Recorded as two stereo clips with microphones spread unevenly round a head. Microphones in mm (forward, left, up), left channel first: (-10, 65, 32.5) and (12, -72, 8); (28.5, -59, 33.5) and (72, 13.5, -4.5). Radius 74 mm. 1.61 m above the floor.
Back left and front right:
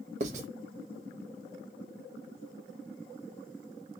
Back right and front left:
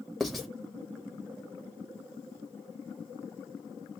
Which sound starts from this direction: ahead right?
Writing, at 0.2 s.